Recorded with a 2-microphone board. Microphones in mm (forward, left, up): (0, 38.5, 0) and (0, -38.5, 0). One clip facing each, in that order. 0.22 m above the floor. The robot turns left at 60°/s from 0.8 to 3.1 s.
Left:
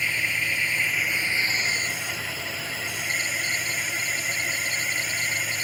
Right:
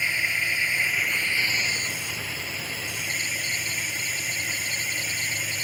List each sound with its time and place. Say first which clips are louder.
0.0 s a drone: even; 170° right; by 5.7 s 55° left